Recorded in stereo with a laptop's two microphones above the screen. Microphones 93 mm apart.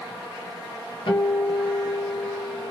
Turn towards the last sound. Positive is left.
turn(degrees=60)  # may be behind; listen again after turning